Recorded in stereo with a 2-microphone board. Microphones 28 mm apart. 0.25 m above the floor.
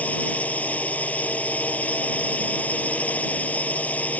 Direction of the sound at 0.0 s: 70° left (ahead or behind).